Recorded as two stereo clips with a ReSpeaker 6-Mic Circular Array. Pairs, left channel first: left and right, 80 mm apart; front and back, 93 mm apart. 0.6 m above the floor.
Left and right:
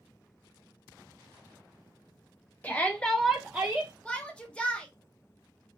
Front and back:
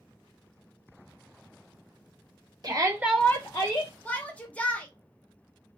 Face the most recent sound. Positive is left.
turn(degrees=45)